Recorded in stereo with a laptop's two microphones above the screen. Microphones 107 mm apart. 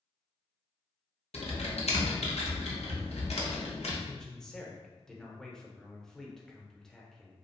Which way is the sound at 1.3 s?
85° left.